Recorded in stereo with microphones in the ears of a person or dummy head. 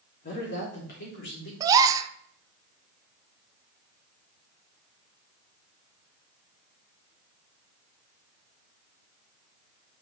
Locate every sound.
0.2 s a woman speaking: 55° left (ahead or behind), 3 m; by 1.5 s 65° left (ahead or behind), 3.5 m
1.6 s a gasp: 20° right (ahead or behind), 0.6 m